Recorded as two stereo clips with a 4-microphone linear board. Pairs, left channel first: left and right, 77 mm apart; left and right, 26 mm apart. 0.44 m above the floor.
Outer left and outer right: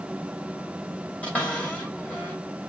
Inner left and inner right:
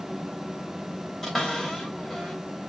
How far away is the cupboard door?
About 2 m.